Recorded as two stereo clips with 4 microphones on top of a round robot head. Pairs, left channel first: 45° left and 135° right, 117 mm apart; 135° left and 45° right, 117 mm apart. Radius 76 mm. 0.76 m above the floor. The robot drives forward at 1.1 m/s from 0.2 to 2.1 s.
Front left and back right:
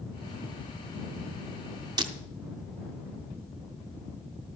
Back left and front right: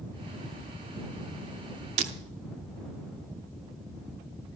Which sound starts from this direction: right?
Breaking glass, at 2.0 s.